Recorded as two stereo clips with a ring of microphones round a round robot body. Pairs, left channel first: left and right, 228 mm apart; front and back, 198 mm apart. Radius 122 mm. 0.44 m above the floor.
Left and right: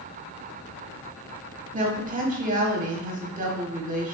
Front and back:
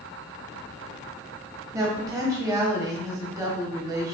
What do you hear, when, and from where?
1.7 s a woman speaking: 115° right, 1.2 m